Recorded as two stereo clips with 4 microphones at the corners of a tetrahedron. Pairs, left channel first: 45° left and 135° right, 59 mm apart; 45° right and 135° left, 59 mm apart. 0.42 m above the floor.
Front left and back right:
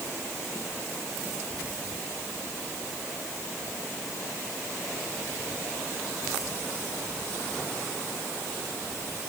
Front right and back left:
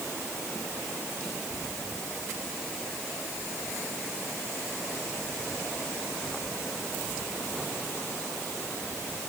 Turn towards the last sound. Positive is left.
No sound to turn to.